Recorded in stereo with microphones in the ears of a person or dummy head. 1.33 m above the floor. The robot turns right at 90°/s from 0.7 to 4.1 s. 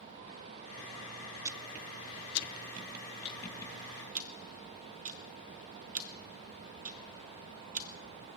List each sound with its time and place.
1.4 s ticking: 20° right (ahead or behind), 0.6 m; by 7.9 s 35° right (ahead or behind), 0.6 m